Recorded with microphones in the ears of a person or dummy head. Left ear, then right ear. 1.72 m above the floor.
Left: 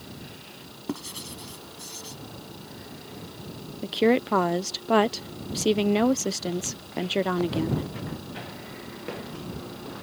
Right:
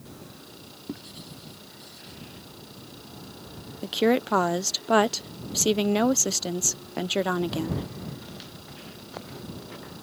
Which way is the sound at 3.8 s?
5° right (ahead or behind).